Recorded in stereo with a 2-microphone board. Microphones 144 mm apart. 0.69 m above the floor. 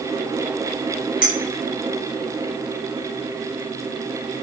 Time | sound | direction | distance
1.2 | a clink | 80° left | 2.5 m